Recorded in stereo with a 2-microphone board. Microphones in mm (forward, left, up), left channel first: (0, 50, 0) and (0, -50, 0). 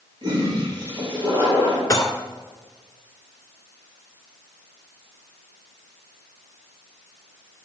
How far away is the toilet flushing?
About 3.5 m.